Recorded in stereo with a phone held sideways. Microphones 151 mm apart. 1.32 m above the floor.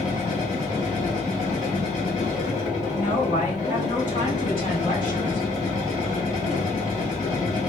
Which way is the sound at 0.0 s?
50° left (ahead or behind).